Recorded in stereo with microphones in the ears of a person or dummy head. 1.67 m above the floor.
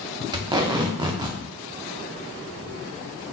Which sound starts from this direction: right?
Tape being pulled, at 0.3 s.